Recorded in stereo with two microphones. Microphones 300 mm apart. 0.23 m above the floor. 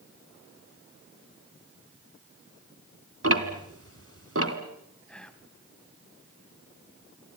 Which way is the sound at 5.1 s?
5° left (ahead or behind).